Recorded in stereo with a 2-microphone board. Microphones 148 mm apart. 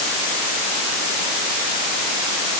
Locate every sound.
Only background noise.